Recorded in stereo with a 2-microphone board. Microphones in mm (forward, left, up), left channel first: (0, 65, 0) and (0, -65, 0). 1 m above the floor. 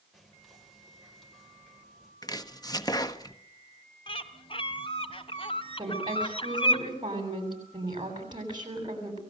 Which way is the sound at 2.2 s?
30° left (ahead or behind).